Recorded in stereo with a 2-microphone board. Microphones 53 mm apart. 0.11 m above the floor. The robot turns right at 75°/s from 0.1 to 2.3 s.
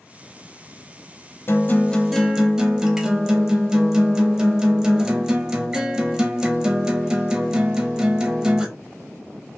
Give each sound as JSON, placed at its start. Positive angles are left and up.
{"t": 1.5, "sound": "a guitar", "azimuth_deg": 130, "distance_m": 0.5}